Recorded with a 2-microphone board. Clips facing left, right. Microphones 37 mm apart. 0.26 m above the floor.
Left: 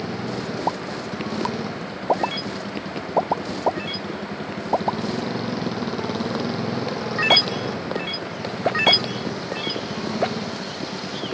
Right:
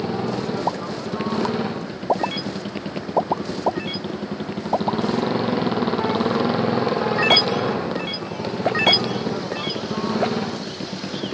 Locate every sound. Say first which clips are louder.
0.0 s a motorcycle: right 4 dB; 30° right (ahead or behind)